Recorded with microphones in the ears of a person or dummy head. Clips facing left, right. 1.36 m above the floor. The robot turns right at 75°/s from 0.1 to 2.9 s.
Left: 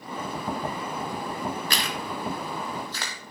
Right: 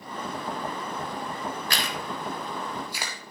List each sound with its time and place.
1.7 s chewing: 80° left, 1.8 m; by 3.3 s 10° right (ahead or behind), 1.8 m